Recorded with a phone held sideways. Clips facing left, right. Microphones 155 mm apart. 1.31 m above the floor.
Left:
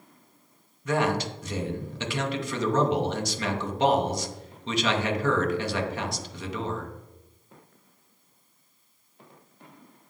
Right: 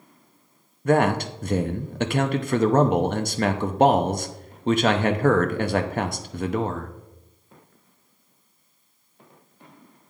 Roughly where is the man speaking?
Right.